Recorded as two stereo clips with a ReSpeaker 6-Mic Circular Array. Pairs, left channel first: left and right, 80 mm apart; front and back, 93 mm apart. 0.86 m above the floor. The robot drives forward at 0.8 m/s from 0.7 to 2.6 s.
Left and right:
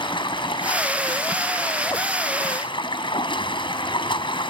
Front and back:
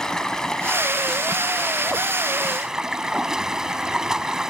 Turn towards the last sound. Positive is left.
turn(degrees=95)